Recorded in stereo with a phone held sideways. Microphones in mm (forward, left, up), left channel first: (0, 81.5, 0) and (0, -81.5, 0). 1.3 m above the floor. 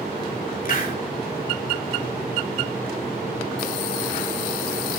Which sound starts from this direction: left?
A hiss, at 0.7 s.